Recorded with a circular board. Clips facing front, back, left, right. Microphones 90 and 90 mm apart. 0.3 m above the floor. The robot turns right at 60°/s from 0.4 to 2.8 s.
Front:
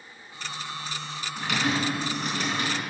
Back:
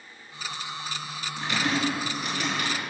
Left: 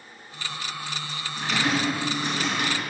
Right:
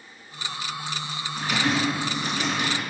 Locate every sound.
1.4 s typing on a keyboard: 15° right, 4 m; by 2.8 s 70° left, 4 m